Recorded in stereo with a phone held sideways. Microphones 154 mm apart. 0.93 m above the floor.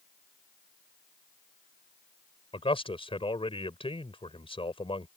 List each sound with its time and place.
2.5 s a man speaking: 35° left (ahead or behind)